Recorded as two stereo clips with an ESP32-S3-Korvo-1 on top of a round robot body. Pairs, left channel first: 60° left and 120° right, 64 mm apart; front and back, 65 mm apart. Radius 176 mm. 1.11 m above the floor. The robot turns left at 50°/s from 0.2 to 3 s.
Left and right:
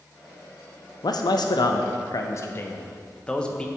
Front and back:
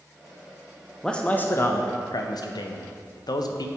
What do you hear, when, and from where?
1.0 s a man speaking: 80° left, 0.6 m; by 3.7 s 15° right, 0.6 m